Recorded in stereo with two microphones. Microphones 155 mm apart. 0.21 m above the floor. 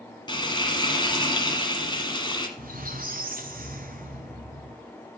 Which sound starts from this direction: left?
Frying, at 0.3 s.